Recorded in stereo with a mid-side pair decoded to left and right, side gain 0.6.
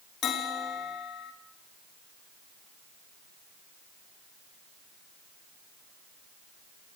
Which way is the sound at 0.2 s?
50° left.